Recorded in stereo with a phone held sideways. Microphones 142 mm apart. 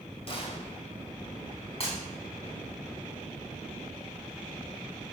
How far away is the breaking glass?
About 4.5 m.